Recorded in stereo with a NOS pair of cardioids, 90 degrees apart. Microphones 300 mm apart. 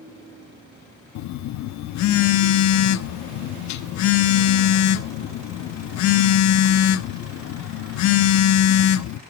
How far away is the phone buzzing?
About 0.8 m.